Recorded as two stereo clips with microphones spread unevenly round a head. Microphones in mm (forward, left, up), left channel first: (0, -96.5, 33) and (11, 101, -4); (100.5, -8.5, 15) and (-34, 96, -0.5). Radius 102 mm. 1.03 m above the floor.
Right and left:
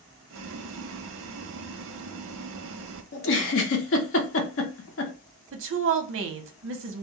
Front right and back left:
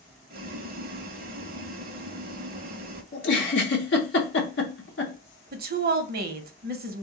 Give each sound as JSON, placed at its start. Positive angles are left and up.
{"t": 0.3, "sound": "boiling", "azimuth_deg": 105, "distance_m": 0.6}
{"t": 3.1, "sound": "a giggle", "azimuth_deg": -65, "distance_m": 0.7}
{"t": 5.5, "sound": "a woman speaking", "azimuth_deg": 110, "distance_m": 0.7}